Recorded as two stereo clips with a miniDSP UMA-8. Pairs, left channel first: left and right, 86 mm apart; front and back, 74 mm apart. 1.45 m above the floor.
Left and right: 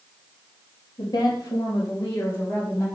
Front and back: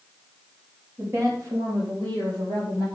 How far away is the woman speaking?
About 2.5 m.